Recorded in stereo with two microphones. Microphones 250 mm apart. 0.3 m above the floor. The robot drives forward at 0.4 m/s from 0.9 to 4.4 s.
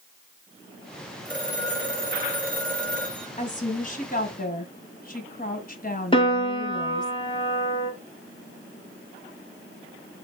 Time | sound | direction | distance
1.2 | a phone ringing | 5° left (ahead or behind) | 4 m
3.4 | a woman speaking | 35° left (ahead or behind) | 2.5 m
6.1 | a piano | 20° left (ahead or behind) | 1.8 m